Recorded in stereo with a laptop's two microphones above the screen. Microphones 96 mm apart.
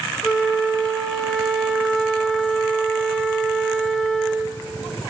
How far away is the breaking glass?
I don't hear breaking glass.